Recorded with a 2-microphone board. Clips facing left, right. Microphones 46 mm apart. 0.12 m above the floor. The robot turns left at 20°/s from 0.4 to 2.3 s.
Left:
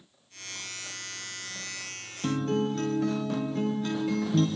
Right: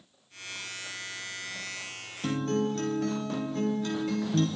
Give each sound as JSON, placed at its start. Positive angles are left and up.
{"t": 2.2, "sound": "a guitar", "side_deg": 0, "distance_m": 2.0}